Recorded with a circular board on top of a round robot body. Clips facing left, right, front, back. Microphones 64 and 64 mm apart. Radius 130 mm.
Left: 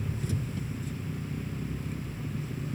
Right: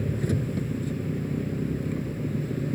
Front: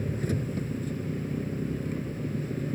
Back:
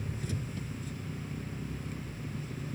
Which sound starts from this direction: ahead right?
An engine running, at 0.0 s.